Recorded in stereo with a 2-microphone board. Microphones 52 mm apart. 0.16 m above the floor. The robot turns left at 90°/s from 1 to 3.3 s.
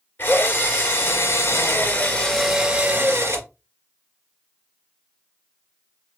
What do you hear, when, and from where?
0.2 s a drill: 130° left, 2 m; by 3.5 s 75° right, 2 m